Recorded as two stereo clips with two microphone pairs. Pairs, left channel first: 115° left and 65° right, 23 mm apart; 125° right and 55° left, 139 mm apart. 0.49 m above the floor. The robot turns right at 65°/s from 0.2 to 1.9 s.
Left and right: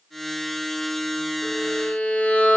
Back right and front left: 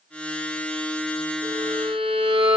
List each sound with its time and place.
1.4 s a violin: 70° left, 1.8 m; by 2.6 s 100° left, 1.8 m